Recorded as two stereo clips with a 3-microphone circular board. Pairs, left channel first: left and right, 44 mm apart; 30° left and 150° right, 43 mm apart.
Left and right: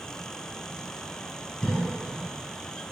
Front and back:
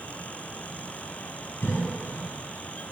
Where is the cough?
15° left, 2.5 m.